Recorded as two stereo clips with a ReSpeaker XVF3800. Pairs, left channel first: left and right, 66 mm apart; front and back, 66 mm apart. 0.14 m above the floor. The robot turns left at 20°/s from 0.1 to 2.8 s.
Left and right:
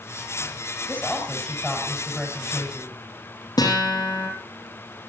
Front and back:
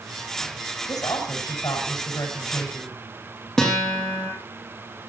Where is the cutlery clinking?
I don't hear cutlery clinking.